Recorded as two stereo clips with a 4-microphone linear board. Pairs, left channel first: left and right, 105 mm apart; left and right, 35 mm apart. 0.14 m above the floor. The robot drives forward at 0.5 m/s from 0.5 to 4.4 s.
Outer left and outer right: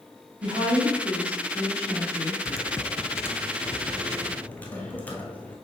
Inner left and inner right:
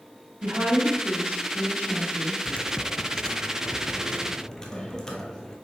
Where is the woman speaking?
60° right (ahead or behind), 3.5 m; by 2.4 s 65° right (ahead or behind), 3 m.